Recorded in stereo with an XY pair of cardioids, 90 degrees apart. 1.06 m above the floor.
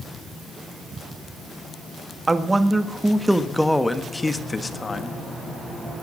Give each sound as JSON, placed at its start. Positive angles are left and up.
{"t": 2.3, "sound": "a man speaking", "azimuth_deg": -25, "distance_m": 1.7}